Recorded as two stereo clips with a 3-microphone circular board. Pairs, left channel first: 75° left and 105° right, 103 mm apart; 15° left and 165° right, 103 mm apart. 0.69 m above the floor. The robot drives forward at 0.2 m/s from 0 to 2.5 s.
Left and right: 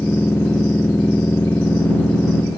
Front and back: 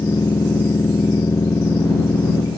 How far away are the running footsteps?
I don't hear running footsteps.